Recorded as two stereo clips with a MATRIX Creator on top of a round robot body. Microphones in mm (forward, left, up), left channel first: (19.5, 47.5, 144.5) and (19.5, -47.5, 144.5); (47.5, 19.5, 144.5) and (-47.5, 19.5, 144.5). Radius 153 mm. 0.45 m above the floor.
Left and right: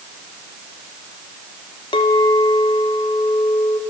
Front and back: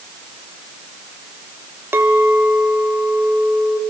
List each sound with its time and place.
1.9 s a clink: 115° left, 1.8 m